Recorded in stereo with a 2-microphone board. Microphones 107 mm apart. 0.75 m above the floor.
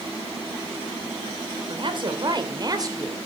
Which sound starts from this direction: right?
A woman speaking, at 1.7 s.